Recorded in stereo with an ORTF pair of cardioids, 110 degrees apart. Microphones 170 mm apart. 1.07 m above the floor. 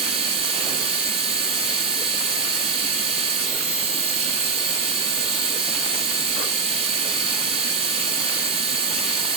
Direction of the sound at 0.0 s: 35° right.